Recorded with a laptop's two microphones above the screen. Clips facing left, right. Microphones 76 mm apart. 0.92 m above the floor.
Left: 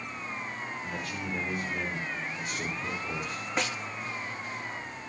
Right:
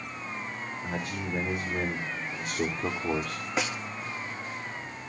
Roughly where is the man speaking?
Centre.